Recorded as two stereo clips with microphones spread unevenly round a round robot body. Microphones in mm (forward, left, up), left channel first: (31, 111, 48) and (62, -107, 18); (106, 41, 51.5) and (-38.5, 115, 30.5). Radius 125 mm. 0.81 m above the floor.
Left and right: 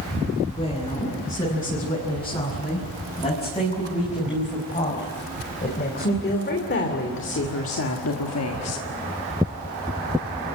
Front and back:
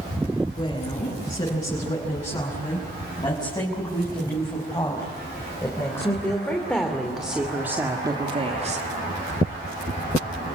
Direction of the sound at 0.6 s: 30° left.